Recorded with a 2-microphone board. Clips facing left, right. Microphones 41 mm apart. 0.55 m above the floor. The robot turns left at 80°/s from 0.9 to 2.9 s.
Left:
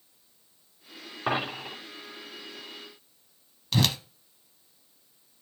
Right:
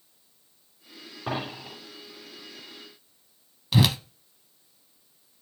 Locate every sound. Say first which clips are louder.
1.3 s a dropped coin: left 3 dB; 55° left (ahead or behind), 3.5 m; by 1.8 s 85° left, 3.5 m
3.7 s a whoosh: right 3 dB; 15° right (ahead or behind), 0.5 m